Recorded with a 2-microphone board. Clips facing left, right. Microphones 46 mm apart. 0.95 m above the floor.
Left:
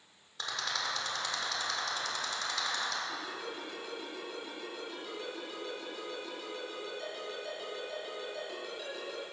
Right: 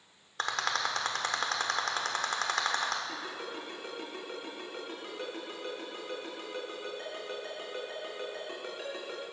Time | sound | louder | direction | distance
0.4 | a rattle | right 5 dB | 60° right (ahead or behind) | 1.3 m
3.1 | a ringtone | right 1 dB | 45° right (ahead or behind) | 4.5 m